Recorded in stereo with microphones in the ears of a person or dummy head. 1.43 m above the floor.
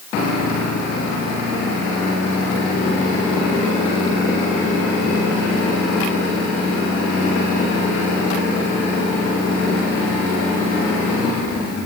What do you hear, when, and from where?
Only background noise.